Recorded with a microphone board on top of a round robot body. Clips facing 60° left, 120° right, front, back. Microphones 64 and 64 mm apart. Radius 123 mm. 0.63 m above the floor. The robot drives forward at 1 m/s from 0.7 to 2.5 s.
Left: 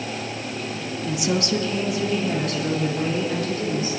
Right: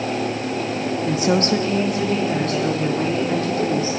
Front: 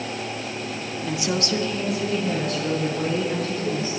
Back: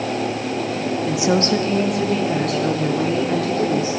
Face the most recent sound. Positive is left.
turn(degrees=-170)